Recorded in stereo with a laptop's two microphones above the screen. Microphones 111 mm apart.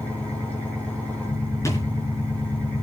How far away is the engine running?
About 5 m.